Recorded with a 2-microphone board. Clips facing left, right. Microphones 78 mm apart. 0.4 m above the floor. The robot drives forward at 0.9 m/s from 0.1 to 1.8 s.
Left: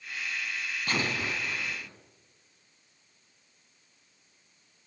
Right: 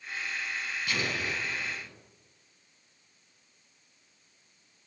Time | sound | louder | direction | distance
0.9 | an explosion | left 2 dB | 50° left (ahead or behind) | 2.5 m